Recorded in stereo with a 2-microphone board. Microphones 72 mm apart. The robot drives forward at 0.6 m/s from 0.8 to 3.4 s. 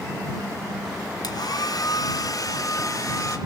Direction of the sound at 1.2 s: 65° left (ahead or behind).